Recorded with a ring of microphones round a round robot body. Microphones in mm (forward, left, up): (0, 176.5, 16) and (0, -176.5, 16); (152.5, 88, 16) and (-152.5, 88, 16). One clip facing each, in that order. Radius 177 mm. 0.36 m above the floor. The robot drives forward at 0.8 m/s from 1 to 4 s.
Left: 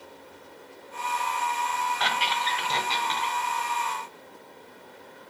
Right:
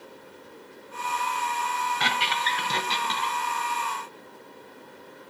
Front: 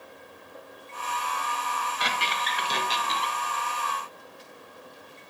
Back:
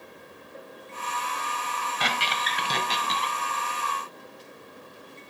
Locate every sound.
2.0 s a squeak: 145° right, 1.1 m; by 3.4 s 165° right, 2 m